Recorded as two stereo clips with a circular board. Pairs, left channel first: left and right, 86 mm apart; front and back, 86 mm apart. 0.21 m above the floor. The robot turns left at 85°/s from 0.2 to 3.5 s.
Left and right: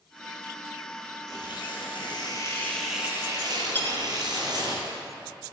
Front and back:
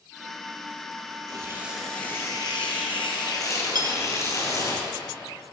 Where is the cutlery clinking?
155° left, 1.8 m.